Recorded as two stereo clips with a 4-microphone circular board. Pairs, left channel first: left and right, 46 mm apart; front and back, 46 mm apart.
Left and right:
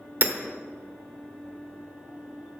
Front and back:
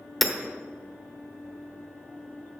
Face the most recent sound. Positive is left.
turn(degrees=-90)